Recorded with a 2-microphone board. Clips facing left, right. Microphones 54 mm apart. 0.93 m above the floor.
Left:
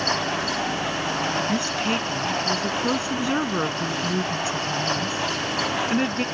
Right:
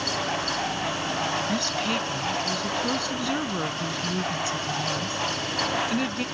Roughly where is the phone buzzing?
No phone buzzing in this recording.